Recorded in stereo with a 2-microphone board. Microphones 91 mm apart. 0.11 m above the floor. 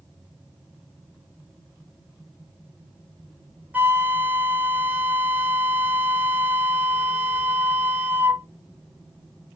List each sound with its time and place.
3.7 s a flute: 20° right (ahead or behind), 0.7 m